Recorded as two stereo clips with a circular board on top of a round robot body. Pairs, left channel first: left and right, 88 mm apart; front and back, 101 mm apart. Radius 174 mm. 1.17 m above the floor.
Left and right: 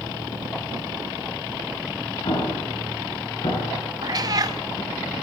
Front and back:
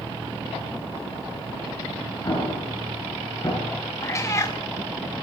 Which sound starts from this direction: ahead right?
A cat meowing, at 4.0 s.